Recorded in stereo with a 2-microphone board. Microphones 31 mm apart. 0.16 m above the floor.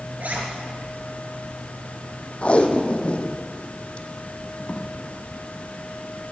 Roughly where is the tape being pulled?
Left.